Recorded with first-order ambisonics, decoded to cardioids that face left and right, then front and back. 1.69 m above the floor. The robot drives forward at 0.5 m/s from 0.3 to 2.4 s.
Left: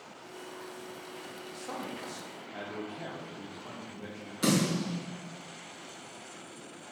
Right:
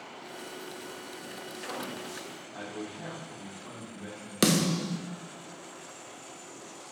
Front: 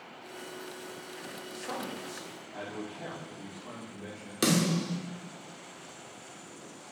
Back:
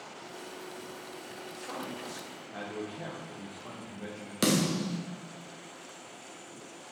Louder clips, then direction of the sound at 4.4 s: Right 2 dB, even; 95° right.